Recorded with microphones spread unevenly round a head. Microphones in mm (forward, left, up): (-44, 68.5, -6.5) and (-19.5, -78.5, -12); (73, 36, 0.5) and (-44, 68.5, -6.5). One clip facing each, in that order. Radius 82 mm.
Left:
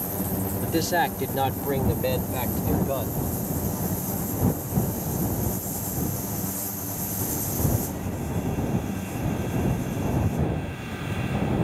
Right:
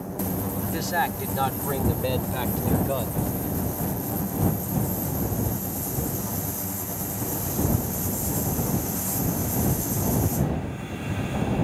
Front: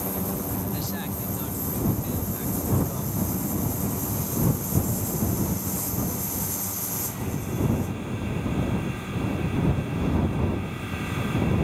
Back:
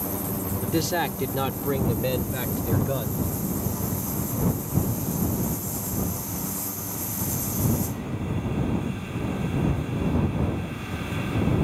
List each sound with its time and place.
0.6 s a man speaking: 145° left; by 3.2 s 165° right